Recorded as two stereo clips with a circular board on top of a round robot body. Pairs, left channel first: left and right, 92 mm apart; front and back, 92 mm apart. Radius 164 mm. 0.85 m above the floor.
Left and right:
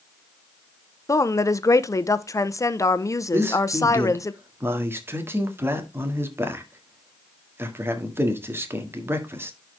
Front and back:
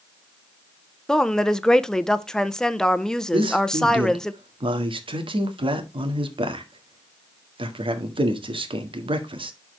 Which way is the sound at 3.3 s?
155° right.